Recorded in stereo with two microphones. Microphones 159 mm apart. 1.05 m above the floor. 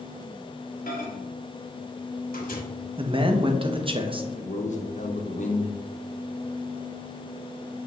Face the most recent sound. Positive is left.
turn(degrees=55)  # may be behind; listen again after turning